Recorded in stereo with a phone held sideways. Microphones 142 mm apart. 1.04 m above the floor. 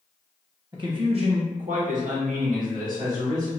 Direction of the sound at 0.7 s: 30° right (ahead or behind).